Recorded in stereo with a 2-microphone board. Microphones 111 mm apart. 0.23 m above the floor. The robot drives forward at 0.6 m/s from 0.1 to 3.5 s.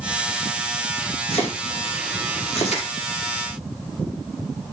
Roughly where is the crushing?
Left.